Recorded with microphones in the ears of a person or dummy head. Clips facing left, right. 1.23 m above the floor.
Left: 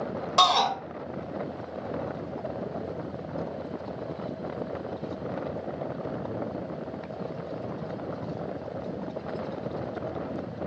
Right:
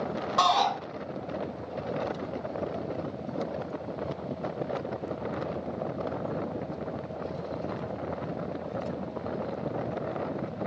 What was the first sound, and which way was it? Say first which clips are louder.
A shout: left 1 dB; 45° left (ahead or behind).